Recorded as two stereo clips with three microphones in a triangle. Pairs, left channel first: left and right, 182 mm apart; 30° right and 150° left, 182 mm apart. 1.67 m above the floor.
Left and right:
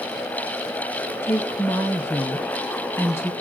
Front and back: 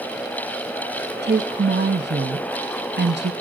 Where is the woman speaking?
165° left, 1.0 m.